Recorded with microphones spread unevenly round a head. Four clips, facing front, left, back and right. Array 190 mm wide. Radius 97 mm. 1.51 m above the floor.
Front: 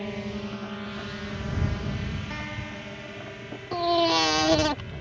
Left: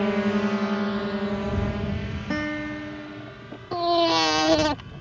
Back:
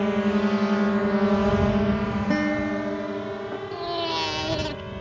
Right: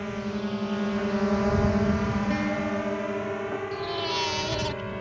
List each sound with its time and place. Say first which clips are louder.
0.0 s a drone: left 8 dB, back 11 dB; 135° left; by 5.0 s 120° right
2.3 s a guitar: right 2 dB, back 13 dB; 165° left
3.7 s a baby crying: left 9 dB, front 7 dB; 60° left